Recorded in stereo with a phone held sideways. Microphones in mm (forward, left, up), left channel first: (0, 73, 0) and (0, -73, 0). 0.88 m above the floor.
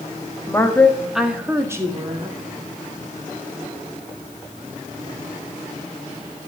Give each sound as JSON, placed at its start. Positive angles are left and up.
{"t": 0.5, "sound": "a woman speaking", "side_deg": 20, "distance_m": 1.8}